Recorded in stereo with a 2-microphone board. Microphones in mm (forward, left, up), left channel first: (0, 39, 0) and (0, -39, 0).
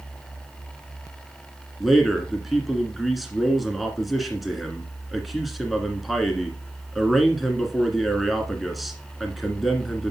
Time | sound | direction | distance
1.8 | a man speaking | centre (ahead or behind) | 1.8 m